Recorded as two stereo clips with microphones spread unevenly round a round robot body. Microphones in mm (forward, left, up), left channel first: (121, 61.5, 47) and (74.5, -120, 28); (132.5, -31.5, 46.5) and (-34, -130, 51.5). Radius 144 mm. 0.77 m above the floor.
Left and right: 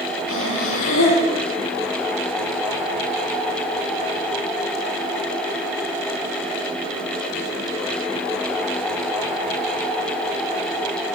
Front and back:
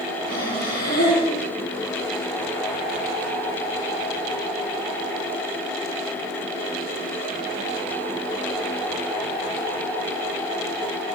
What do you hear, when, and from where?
0.3 s breathing: 90° left, 6 m